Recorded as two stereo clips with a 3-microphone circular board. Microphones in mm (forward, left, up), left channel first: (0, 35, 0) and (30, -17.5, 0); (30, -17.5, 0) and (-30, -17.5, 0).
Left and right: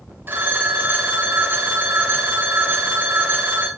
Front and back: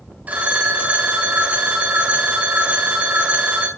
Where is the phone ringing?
115° right, 1.7 m.